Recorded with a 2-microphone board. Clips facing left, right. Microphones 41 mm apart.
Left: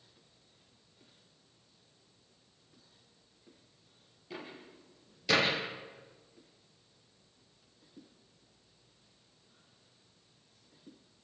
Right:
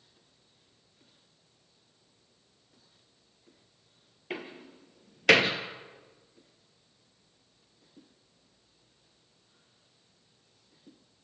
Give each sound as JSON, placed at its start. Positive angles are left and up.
{"t": 4.3, "sound": "a door slam", "side_deg": -65, "distance_m": 2.5}